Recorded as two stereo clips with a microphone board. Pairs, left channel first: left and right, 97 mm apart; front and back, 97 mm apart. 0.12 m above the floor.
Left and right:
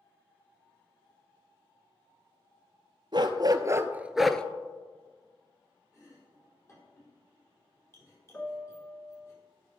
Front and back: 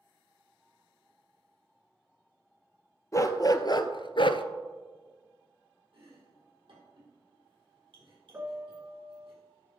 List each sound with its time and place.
3.1 s a dog barking: 55° right, 0.9 m; by 4.4 s 15° left, 0.6 m
5.9 s chopping: 150° left, 4 m
8.3 s a piano: 145° left, 1.3 m